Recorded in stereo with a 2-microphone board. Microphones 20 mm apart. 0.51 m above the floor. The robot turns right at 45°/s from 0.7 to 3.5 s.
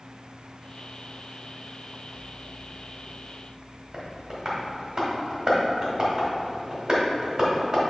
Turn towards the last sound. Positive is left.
turn(degrees=-40)  # may be behind; listen again after turning